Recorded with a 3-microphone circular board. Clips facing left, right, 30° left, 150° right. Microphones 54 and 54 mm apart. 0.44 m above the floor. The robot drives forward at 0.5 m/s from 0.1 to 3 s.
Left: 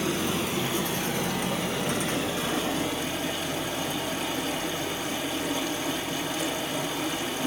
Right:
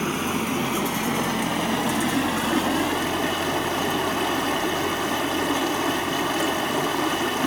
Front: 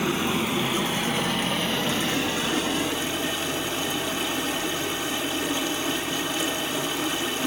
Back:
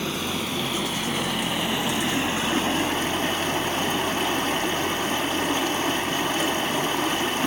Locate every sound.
0.0 s running water: 45° right, 1.6 m; by 7.5 s 105° right, 1.2 m